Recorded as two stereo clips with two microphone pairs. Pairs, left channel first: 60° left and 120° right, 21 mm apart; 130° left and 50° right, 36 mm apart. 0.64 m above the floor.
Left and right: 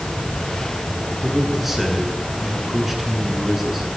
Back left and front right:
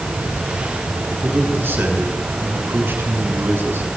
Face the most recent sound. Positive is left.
turn(degrees=-40)